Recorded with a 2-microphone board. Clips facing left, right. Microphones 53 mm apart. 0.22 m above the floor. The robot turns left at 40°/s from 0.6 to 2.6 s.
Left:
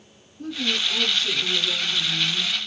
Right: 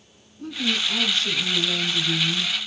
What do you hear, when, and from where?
0.4 s a woman speaking: 30° right, 1.7 m; by 2.5 s 105° right, 1.7 m